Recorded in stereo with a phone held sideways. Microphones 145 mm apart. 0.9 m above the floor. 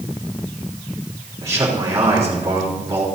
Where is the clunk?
No clunk in this recording.